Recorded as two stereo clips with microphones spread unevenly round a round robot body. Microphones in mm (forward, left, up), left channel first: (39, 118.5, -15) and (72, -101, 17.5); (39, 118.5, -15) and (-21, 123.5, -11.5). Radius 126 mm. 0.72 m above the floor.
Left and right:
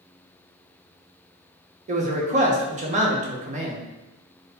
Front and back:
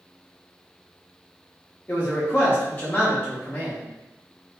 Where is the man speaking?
40° right, 0.5 m.